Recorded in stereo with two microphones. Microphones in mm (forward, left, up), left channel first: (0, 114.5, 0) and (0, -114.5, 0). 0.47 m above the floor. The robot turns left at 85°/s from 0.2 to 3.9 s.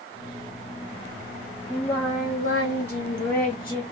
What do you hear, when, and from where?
1.7 s singing: 170° right, 1.9 m; by 3.8 s 10° left, 1.9 m